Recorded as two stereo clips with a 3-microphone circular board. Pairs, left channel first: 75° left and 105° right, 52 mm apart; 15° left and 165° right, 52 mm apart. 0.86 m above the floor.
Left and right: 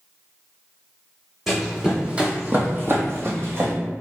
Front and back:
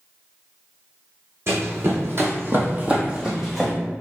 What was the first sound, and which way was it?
Running footsteps, 170° left.